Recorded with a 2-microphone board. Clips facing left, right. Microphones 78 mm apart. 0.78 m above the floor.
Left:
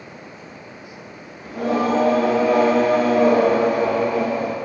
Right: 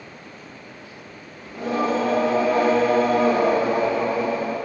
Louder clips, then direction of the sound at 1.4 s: Left 3 dB; 80° left.